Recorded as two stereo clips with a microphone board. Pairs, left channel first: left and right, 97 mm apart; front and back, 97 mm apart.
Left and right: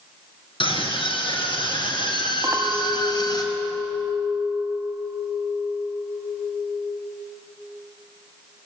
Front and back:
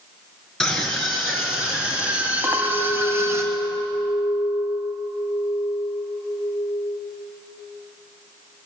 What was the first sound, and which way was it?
A scream, 90° left.